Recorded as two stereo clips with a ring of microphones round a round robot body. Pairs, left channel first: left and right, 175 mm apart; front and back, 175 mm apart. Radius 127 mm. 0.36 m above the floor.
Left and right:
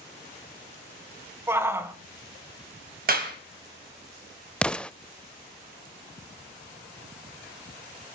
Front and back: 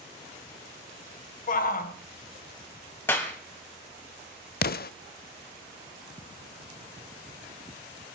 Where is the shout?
20° right, 2 m.